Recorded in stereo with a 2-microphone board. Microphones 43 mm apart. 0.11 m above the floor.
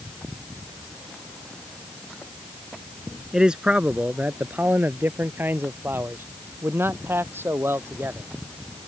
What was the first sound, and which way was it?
A man speaking, 15° right (ahead or behind).